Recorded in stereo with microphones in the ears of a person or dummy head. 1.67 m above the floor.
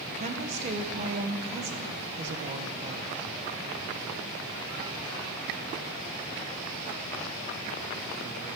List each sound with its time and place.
0.1 s a woman speaking: 35° right (ahead or behind), 1.3 m